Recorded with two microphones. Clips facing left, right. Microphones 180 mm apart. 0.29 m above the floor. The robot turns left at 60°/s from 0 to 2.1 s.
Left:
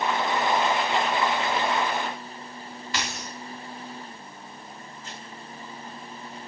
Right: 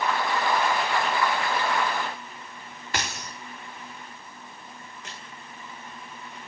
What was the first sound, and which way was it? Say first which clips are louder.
A dropped coin: right 1 dB; 50° right (ahead or behind).